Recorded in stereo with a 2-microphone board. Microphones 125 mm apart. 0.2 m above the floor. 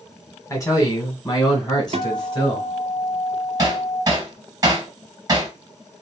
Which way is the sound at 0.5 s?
25° left (ahead or behind).